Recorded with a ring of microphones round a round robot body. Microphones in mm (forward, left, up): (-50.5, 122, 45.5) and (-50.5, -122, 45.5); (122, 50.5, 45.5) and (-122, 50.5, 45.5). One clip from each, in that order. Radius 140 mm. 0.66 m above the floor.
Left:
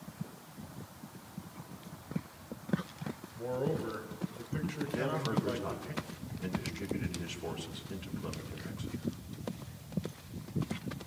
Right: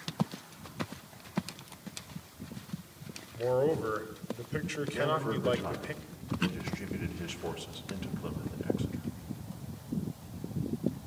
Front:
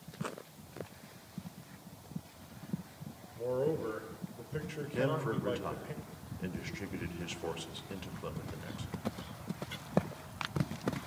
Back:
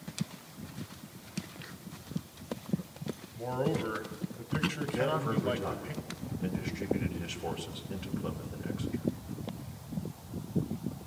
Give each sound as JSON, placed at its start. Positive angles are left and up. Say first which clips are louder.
{"t": 3.4, "sound": "a man speaking", "louder": "right 7 dB, even", "azimuth_deg": -95, "distance_m": 2.0}
{"t": 4.9, "sound": "a man speaking", "louder": "right 4 dB, back 1 dB", "azimuth_deg": -15, "distance_m": 3.5}